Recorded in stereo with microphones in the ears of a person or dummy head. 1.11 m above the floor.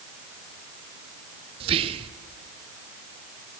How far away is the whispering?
About 0.6 m.